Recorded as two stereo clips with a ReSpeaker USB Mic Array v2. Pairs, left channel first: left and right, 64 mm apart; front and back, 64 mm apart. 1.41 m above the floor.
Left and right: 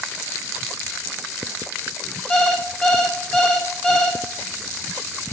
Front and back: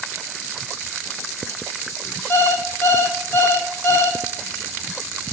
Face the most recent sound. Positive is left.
turn(degrees=20)